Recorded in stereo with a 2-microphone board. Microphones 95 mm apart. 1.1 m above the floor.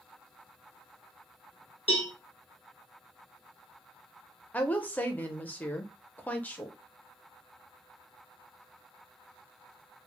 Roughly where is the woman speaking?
Centre.